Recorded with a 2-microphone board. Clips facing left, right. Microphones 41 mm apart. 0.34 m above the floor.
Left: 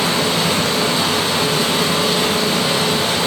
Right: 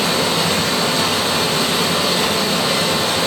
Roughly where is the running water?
Left.